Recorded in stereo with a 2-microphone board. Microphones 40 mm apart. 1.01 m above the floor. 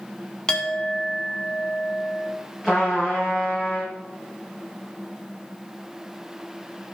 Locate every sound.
0.5 s a clink: 15° left (ahead or behind), 1.4 m
2.6 s a trumpet: 10° right (ahead or behind), 6.5 m